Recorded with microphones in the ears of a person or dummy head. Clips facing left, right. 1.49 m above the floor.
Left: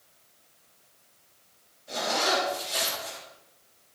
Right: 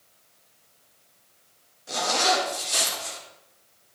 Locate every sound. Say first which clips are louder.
1.9 s a zipper: right 3 dB; 70° right (ahead or behind), 2.5 m